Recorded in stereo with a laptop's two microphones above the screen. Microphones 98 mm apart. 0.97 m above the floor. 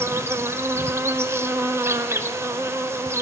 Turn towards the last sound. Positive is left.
turn(degrees=-30)  # may be behind; listen again after turning